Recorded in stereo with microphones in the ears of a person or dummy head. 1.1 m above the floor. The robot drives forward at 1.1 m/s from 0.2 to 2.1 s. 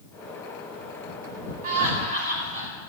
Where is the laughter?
45° right (ahead or behind), 5 m; by 2.7 s 40° right (ahead or behind), 5.5 m.